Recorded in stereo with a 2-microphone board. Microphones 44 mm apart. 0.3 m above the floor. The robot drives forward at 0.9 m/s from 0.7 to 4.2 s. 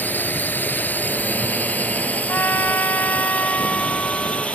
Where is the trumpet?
50° left (ahead or behind); by 4.5 s 35° left (ahead or behind).